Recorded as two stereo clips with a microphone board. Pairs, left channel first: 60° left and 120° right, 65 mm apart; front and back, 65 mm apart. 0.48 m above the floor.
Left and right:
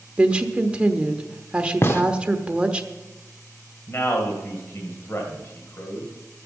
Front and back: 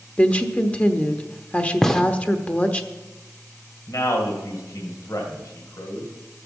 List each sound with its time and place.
0.2 s a woman speaking: 55° right, 1.0 m
1.8 s a gunshot: 75° left, 0.8 m
3.9 s a man speaking: 15° left, 2.0 m